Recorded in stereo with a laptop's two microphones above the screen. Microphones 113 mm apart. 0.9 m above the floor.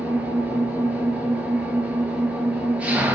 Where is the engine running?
10° right (ahead or behind), 6.5 m.